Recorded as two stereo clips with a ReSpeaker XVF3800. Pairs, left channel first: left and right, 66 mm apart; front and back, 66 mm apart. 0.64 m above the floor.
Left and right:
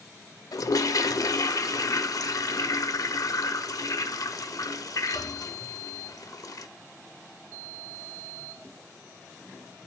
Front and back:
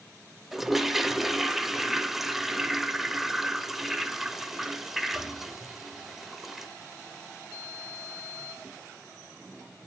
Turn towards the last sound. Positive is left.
turn(degrees=95)